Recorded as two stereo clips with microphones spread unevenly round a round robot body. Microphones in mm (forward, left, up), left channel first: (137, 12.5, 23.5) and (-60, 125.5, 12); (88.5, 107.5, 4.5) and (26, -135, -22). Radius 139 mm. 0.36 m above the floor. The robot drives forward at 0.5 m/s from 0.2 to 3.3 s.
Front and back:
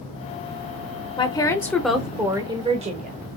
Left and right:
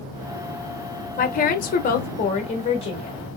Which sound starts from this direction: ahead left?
A woman speaking, at 1.2 s.